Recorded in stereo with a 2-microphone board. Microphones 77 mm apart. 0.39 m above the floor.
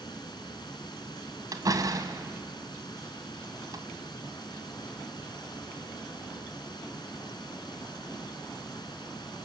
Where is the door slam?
55° right (ahead or behind), 1.8 m.